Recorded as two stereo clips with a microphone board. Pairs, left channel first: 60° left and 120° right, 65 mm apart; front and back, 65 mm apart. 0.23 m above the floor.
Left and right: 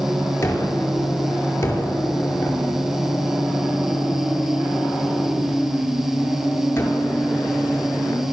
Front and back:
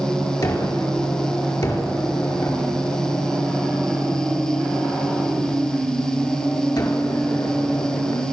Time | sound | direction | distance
0.4 | a gunshot | 10° left | 4.5 m